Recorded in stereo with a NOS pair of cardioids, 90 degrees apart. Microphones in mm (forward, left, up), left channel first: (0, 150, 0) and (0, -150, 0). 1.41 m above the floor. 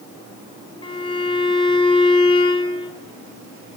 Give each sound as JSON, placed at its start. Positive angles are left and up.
{"t": 0.8, "sound": "a violin", "azimuth_deg": 20, "distance_m": 3.5}